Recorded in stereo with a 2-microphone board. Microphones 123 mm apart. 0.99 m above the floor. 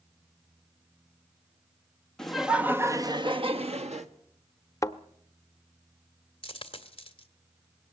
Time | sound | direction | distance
2.2 | laughter | 5° left (ahead or behind) | 1.4 m
4.8 | a thud | 25° left (ahead or behind) | 0.7 m
6.4 | a dropped coin | 45° left (ahead or behind) | 1.5 m